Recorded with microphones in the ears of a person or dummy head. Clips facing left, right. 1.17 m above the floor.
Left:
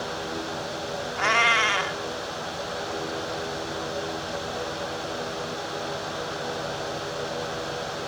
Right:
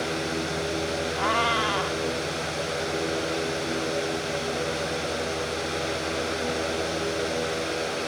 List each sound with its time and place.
1.2 s a cat meowing: 30° left (ahead or behind)